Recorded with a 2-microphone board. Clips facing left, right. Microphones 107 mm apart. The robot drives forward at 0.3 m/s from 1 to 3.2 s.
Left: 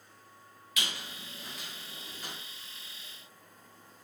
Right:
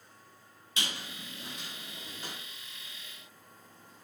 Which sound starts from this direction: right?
A squeak, at 0.8 s.